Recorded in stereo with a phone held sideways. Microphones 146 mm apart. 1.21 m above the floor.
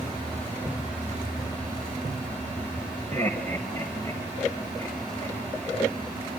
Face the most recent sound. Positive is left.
turn(degrees=15)  # may be behind; listen again after turning